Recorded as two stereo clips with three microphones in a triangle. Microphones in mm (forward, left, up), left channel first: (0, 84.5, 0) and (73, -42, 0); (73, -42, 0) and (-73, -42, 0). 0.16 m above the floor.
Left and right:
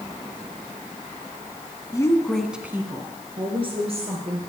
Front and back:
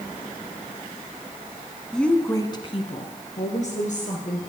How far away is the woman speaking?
About 1.2 m.